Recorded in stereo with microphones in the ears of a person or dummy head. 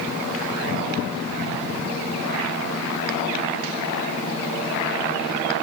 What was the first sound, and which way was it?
Only background noise.